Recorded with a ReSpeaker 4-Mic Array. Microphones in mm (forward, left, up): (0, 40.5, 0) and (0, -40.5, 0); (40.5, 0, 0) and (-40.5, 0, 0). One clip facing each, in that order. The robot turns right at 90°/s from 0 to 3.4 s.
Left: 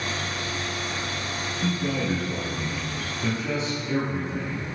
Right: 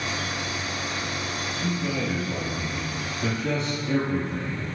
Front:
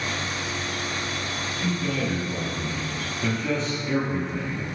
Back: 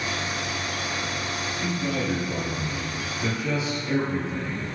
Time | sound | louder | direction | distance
1.6 | a man speaking | left 2 dB, front 1 dB | 95° left | 3 m